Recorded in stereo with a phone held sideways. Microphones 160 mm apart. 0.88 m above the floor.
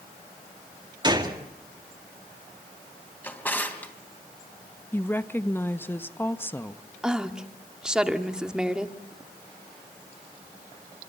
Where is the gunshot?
25° right (ahead or behind), 2 m.